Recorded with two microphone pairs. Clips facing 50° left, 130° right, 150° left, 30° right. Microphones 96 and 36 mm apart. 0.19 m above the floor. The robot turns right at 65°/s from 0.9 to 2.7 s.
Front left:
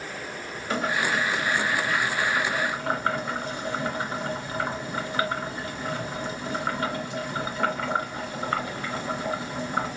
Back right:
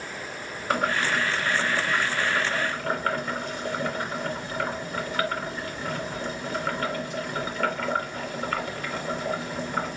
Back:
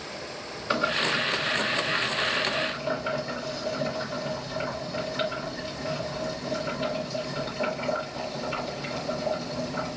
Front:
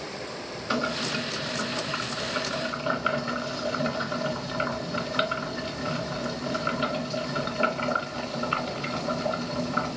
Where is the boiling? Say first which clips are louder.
Back right 1 dB, back 3 dB; 140° right, 2.5 m; by 10.0 s 20° right, 2.5 m.